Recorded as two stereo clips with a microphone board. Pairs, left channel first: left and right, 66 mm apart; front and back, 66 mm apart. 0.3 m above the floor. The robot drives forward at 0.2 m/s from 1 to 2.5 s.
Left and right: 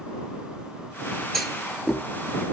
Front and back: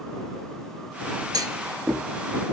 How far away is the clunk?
About 2 m.